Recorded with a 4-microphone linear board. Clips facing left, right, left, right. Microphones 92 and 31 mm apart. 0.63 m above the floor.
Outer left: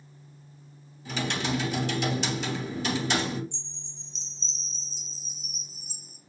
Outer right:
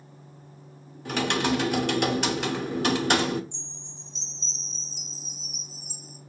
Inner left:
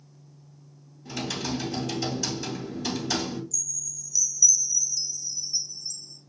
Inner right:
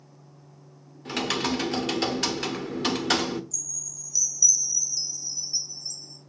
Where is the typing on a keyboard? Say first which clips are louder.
Outer right 5 dB, inner right 5 dB; 60° right (ahead or behind), 0.8 m.